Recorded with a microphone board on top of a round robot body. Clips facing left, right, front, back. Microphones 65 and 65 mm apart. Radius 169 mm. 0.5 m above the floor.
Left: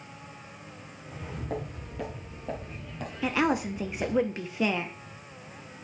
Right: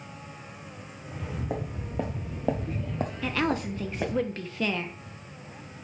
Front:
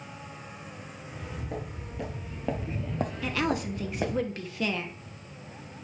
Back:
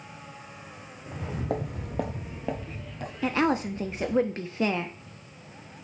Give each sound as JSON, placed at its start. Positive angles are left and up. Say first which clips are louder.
{"t": 1.1, "sound": "footsteps", "louder": "right 2 dB, back 8 dB", "azimuth_deg": -175, "distance_m": 1.9}
{"t": 3.2, "sound": "a woman speaking", "louder": "left 3 dB, back 6 dB", "azimuth_deg": 150, "distance_m": 0.8}